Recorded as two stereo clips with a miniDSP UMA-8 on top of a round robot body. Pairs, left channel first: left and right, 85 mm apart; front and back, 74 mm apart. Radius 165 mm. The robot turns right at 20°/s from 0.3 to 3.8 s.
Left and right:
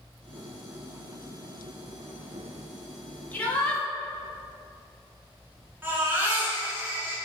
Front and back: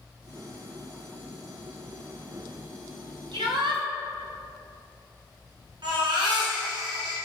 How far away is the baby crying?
About 4 m.